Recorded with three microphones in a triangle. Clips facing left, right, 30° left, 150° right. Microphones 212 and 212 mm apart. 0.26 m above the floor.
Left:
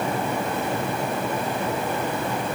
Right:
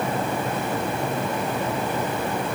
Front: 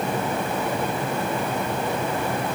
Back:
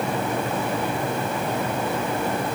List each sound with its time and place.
Only background noise.